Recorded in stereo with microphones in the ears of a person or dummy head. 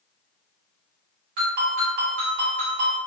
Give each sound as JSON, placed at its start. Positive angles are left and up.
{"t": 1.4, "sound": "a ringtone", "side_deg": -55, "distance_m": 1.4}